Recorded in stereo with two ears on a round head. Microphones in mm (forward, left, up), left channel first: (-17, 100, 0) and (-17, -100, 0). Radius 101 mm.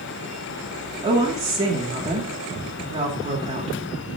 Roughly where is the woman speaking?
Right.